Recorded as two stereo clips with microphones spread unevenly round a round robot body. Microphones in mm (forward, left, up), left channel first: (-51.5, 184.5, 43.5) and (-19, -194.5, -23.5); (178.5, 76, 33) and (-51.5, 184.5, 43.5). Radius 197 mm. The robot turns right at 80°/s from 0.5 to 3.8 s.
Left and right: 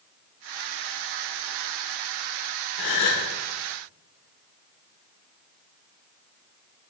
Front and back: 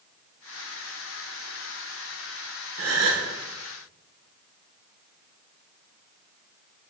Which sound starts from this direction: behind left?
A gasp, at 2.8 s.